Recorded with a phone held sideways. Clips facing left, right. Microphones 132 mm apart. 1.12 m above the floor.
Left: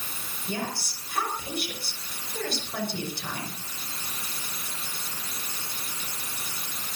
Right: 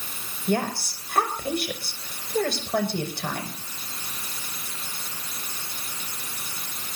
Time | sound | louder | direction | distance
0.5 | a woman speaking | right 8 dB | 65° right (ahead or behind) | 6 m